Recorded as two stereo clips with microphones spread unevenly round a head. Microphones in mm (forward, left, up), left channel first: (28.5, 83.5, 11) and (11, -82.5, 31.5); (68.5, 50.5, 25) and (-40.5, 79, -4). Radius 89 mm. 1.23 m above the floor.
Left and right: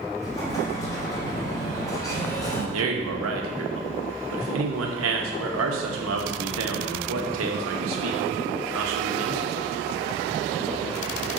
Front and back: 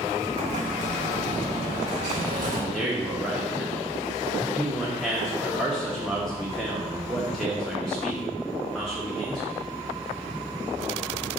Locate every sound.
0.2 s an explosion: 160° left, 1.5 m
2.7 s a man speaking: 100° right, 1.2 m